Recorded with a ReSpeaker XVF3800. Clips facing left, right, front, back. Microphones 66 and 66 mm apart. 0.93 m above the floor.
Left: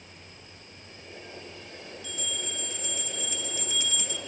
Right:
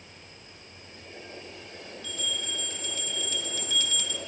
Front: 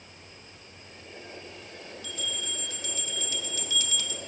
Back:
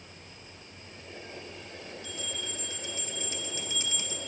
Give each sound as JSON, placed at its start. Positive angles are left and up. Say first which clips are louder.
{"t": 2.0, "sound": "a bell", "louder": "right 2 dB, front 4 dB", "azimuth_deg": 145, "distance_m": 0.9}